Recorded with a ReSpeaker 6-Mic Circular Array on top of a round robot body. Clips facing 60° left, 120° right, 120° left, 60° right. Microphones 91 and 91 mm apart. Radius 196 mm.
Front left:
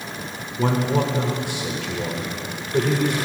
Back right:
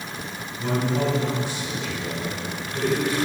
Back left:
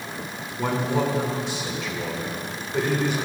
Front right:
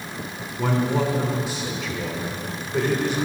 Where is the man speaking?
25° left, 2.5 m.